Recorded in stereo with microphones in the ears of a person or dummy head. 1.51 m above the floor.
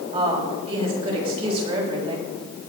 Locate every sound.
0.1 s a woman speaking: 35° right (ahead or behind), 7 m